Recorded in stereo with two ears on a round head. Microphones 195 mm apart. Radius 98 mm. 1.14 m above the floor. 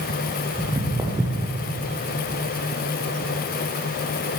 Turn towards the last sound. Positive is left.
turn(degrees=-15)  # may be behind; listen again after turning